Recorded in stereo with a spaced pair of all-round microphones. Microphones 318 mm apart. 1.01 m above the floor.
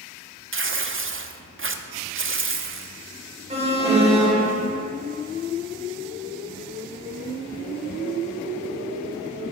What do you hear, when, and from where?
0.5 s tearing paper: 40° right (ahead or behind), 0.5 m
3.5 s an alarm: 20° right (ahead or behind), 1.2 m